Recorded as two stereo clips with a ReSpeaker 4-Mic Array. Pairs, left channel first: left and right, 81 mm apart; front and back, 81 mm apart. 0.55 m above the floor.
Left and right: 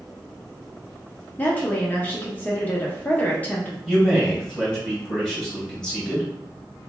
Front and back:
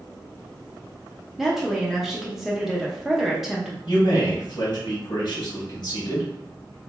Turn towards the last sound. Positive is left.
turn(degrees=10)